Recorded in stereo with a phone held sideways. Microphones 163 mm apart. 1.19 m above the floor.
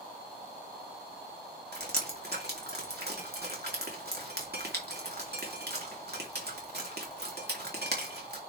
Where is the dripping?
80° right, 3 m.